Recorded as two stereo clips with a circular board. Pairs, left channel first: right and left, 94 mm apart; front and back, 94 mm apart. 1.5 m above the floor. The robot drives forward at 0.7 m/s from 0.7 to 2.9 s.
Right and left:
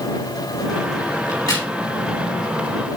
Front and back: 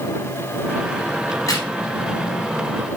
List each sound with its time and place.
1.3 s a crack: 50° right, 3.5 m; by 1.7 s 55° right, 3 m